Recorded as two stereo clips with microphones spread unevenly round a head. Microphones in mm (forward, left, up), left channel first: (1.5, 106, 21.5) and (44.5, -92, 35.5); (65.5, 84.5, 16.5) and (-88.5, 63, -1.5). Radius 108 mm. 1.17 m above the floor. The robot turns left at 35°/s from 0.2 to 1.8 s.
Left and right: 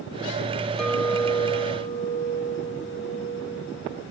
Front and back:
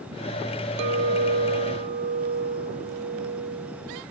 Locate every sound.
0.8 s a clink: 165° right, 0.7 m; by 4.0 s 155° left, 0.7 m